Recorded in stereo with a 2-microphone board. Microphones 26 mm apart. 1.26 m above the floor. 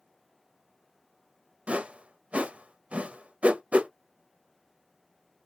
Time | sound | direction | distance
1.7 | a whoosh | 50° right (ahead or behind) | 0.6 m